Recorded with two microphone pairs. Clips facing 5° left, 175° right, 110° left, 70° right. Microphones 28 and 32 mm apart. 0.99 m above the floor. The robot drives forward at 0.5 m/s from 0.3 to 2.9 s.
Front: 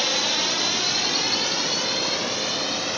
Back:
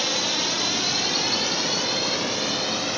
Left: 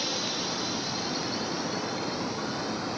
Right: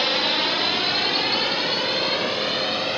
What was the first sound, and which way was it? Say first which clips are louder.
A drone: front 1 dB, right 10 dB; 75° right.